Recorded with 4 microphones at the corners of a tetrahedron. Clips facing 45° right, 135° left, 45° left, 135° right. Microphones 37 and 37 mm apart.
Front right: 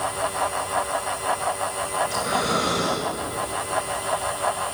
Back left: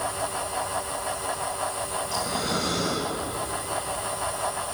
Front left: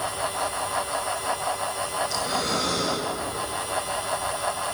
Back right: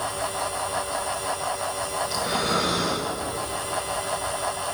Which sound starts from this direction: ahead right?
Breathing, at 2.0 s.